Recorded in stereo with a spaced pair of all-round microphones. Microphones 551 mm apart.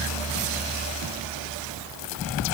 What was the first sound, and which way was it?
Only background noise.